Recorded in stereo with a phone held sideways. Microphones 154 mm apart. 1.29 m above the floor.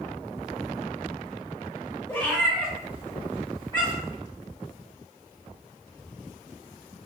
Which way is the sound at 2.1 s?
15° left (ahead or behind).